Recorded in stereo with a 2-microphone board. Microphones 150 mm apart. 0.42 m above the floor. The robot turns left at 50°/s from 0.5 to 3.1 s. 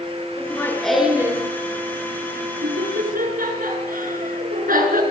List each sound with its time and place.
0.4 s laughter: 20° left (ahead or behind), 5.5 m; by 5.0 s 70° right (ahead or behind), 5.5 m